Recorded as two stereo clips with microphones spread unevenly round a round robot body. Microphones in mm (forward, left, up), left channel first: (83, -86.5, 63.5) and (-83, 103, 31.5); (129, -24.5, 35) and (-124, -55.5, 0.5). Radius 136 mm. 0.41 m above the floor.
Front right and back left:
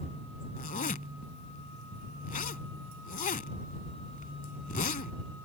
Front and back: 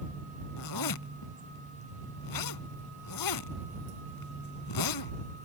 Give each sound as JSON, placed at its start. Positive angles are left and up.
{"t": 0.6, "sound": "a zipper", "azimuth_deg": 15}